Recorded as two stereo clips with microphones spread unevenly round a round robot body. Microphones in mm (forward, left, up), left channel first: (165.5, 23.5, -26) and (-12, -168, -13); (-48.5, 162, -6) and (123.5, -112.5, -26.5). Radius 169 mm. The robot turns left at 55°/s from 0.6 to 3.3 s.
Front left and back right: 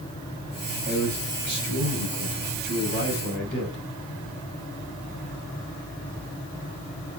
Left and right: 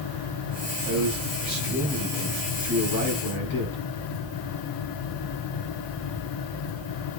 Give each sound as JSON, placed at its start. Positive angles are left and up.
{"t": 0.8, "sound": "a man speaking", "azimuth_deg": -75, "distance_m": 6.5}